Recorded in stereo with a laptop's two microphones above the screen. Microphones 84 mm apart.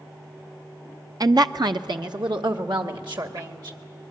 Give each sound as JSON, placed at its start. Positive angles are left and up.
{"t": 1.2, "sound": "a woman speaking", "side_deg": -50, "distance_m": 0.6}